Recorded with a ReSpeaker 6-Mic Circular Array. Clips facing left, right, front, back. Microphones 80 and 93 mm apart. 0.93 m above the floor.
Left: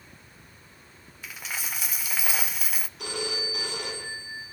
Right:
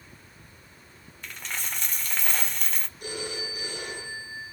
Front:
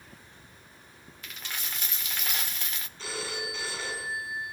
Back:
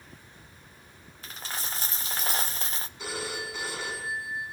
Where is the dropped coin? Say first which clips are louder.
Even, back 3 dB; 170° left, 0.6 m.